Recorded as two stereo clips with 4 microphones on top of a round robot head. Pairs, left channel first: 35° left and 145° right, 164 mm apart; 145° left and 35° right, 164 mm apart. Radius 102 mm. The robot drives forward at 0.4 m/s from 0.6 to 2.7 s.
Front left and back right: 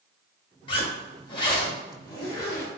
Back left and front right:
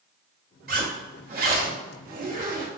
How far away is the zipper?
About 1.8 m.